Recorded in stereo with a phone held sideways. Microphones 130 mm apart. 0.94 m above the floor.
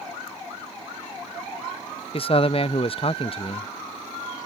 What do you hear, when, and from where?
2.1 s a man speaking: 45° left (ahead or behind)